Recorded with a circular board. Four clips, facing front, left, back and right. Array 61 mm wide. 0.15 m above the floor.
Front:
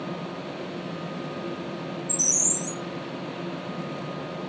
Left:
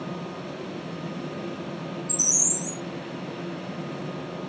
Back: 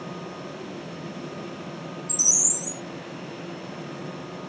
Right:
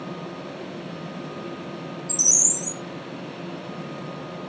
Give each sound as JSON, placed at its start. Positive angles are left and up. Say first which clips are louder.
{"t": 2.1, "sound": "a bird", "louder": "even, front 3 dB", "azimuth_deg": -110, "distance_m": 0.7}